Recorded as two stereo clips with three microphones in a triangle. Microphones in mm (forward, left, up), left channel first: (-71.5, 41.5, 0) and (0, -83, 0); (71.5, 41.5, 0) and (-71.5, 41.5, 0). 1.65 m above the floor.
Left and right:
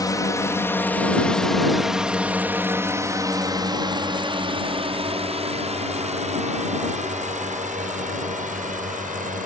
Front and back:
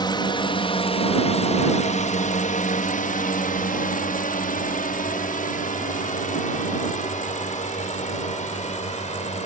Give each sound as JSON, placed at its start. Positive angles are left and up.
{"t": 0.0, "sound": "a drone", "azimuth_deg": 55}